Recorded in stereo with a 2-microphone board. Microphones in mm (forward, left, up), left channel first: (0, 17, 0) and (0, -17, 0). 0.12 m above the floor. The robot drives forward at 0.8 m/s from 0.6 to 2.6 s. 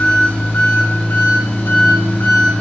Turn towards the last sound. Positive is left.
turn(degrees=70)  # may be behind; listen again after turning